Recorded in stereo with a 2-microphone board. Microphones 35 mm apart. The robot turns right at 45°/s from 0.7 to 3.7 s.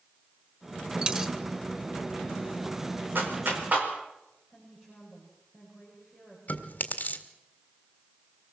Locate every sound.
1.0 s a dropped coin: 25° right (ahead or behind), 1.6 m; by 1.3 s 15° right (ahead or behind), 1.6 m
3.1 s a clap: 80° right, 5 m; by 3.9 s 55° right (ahead or behind), 5 m
4.5 s a woman speaking: 10° right (ahead or behind), 6.5 m
6.5 s chewing: 45° left (ahead or behind), 1.9 m